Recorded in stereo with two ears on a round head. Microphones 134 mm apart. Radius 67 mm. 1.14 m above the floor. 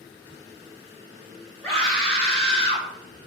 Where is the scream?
10° left (ahead or behind), 5 m.